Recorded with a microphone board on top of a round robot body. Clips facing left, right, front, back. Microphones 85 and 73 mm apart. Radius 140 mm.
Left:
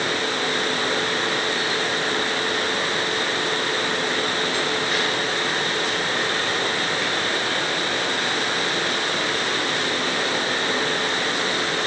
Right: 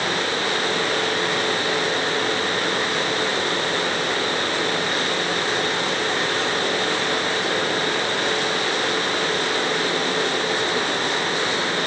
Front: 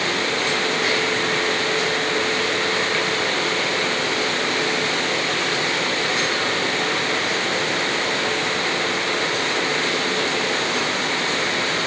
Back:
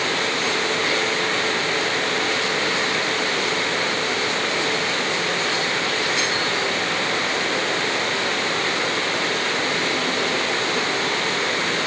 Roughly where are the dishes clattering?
I don't hear dishes clattering.